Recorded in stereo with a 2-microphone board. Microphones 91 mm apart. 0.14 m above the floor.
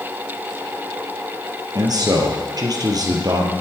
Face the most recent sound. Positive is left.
turn(degrees=-45)  # may be behind; listen again after turning